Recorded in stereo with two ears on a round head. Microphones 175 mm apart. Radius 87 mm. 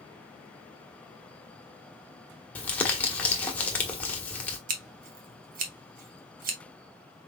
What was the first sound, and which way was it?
Crumpling, 5° left (ahead or behind).